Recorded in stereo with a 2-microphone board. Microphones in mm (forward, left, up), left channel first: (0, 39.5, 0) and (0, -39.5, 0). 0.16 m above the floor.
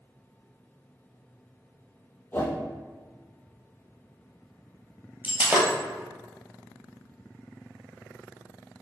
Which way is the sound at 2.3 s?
25° left (ahead or behind).